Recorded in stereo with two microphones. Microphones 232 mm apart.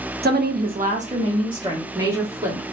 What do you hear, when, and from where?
0.2 s a woman speaking: 45° right (ahead or behind), 0.6 m; by 2.6 s 10° right (ahead or behind), 1.4 m